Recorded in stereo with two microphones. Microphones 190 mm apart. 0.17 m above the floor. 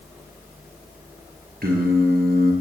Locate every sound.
1.6 s singing: 55° right (ahead or behind), 2.5 m